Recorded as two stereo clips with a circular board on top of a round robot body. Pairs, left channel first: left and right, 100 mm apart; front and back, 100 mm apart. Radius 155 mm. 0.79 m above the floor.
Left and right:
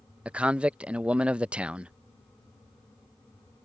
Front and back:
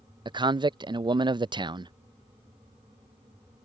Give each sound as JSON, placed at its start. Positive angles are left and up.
{"t": 0.2, "sound": "a man speaking", "azimuth_deg": -165}